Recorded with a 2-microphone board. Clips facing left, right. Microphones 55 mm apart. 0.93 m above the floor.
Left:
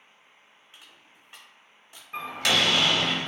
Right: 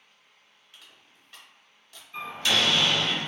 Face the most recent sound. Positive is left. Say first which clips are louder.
# left 1 dB
turn(degrees=70)  # may be behind; listen again after turning